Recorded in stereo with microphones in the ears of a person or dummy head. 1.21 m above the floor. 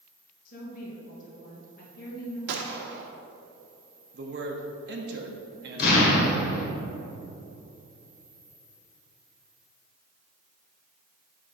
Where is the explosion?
60° left (ahead or behind), 1.6 m.